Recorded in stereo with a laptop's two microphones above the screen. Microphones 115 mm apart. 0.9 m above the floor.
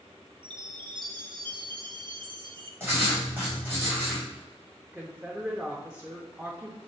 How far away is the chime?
About 0.7 m.